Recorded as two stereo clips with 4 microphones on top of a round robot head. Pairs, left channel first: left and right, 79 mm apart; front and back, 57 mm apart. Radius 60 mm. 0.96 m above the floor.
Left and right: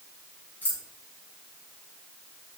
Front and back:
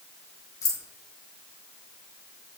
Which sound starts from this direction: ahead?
Keys jangling, at 0.6 s.